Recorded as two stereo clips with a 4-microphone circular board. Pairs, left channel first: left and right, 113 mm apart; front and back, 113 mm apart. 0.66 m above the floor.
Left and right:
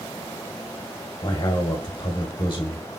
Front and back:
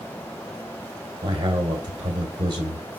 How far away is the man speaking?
About 1.5 m.